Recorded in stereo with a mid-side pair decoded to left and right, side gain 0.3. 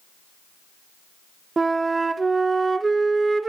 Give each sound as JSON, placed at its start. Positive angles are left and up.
{"t": 1.6, "sound": "a flute", "azimuth_deg": -40, "distance_m": 0.7}